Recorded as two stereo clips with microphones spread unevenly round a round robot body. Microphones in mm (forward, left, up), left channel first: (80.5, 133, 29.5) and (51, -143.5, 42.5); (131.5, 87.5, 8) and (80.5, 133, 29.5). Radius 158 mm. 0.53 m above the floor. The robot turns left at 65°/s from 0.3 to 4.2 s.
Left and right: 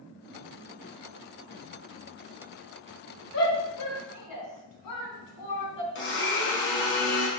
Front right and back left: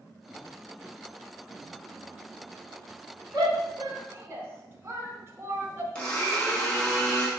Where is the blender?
35° left, 5 m.